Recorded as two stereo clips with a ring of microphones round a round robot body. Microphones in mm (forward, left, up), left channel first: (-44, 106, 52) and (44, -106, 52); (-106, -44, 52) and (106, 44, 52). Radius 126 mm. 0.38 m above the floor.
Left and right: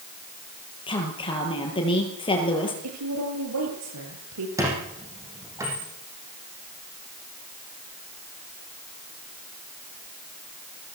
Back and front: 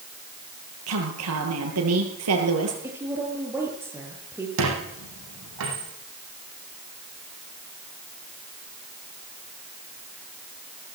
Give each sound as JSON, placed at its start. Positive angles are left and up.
{"t": 0.9, "sound": "a woman speaking", "azimuth_deg": 45, "distance_m": 8.5}
{"t": 2.8, "sound": "a woman speaking", "azimuth_deg": -55, "distance_m": 8.0}
{"t": 4.6, "sound": "a squeak", "azimuth_deg": 10, "distance_m": 8.0}